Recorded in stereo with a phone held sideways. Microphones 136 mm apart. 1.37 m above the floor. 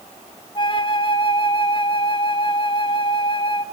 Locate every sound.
0.6 s a flute: 35° left (ahead or behind), 1.1 m